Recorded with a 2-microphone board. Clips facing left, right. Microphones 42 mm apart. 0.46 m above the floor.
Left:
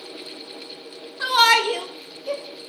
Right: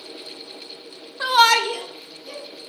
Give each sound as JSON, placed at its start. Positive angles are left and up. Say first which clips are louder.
{"t": 1.2, "sound": "a shout", "louder": "right 1 dB", "side_deg": -15, "distance_m": 0.8}